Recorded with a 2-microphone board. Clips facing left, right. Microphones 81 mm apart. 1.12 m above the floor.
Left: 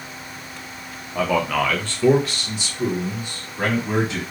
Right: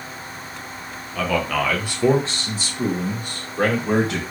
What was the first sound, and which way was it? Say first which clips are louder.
A man speaking: left 2 dB; 20° left (ahead or behind).